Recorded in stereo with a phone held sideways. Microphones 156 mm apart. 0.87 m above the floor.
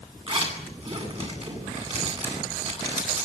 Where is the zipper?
40° right (ahead or behind), 10 m.